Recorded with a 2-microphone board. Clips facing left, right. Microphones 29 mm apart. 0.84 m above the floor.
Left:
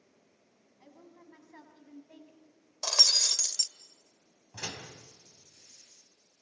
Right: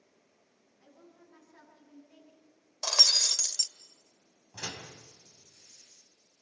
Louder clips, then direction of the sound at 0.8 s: Left 3 dB; 40° left (ahead or behind).